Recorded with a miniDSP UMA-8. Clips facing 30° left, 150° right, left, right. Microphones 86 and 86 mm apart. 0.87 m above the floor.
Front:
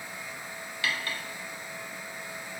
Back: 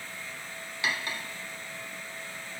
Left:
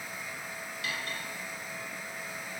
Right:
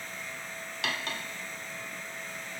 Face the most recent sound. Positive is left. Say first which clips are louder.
# even, right 3 dB
turn(degrees=-80)